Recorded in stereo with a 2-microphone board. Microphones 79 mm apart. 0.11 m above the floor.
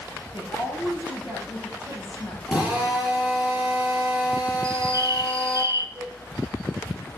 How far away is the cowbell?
About 7.5 m.